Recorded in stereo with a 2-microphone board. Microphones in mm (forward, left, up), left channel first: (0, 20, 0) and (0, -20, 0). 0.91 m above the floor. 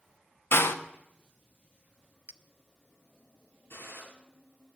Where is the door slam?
70° left (ahead or behind), 0.9 m.